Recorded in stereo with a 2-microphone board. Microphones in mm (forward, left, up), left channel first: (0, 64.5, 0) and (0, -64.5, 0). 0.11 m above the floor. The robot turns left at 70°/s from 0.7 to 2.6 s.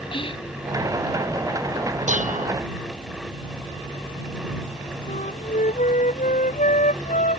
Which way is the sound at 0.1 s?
45° left (ahead or behind).